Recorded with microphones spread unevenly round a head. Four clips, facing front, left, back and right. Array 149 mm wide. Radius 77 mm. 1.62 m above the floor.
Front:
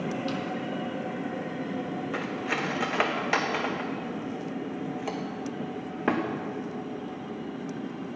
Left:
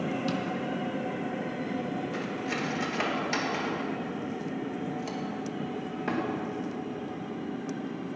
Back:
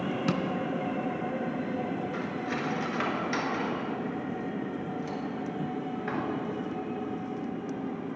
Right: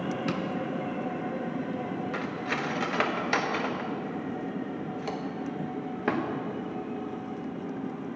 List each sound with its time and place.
0.3 s tapping: 175° left, 0.5 m
2.1 s cutlery clinking: 15° right, 1.1 m